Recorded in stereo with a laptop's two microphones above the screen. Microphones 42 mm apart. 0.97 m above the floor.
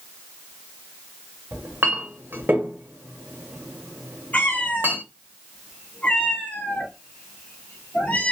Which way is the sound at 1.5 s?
55° right (ahead or behind).